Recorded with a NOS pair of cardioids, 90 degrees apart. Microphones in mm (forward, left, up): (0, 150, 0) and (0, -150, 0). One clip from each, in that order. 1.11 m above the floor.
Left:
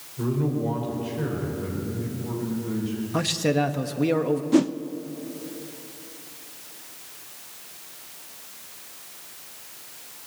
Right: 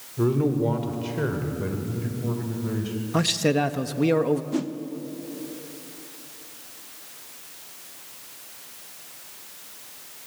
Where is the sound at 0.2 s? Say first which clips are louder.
Right 4 dB; 50° right, 4.5 m.